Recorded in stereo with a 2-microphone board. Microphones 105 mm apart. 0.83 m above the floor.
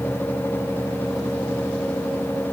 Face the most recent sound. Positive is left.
No sound to turn to.